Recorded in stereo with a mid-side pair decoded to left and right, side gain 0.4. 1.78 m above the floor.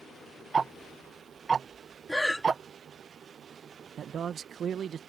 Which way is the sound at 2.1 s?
10° left.